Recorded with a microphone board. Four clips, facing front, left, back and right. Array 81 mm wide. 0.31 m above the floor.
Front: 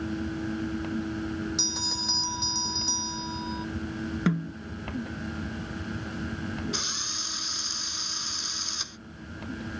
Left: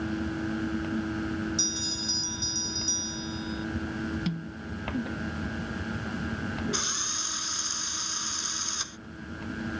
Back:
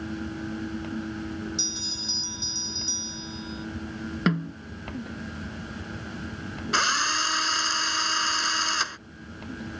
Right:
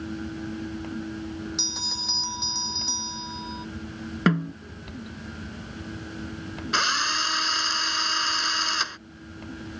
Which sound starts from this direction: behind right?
A drill, at 6.7 s.